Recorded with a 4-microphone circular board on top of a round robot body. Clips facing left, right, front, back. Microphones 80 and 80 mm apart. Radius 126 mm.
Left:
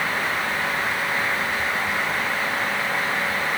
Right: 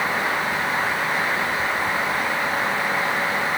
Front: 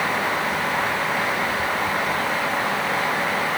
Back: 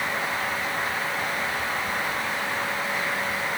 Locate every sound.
Only background noise.